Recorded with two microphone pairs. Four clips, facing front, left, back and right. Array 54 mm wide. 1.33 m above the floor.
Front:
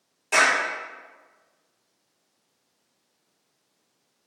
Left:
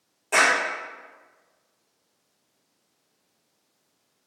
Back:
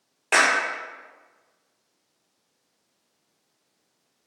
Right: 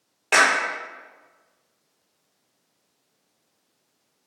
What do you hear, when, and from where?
0.3 s a clap: 135° right, 0.8 m